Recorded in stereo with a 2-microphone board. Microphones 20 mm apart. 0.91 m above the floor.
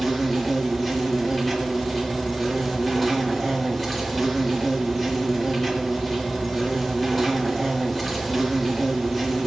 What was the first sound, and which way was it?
An insect, 15° left (ahead or behind).